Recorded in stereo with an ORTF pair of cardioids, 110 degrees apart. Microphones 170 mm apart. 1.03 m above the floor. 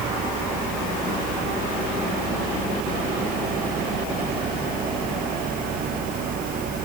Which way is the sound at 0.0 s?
60° right.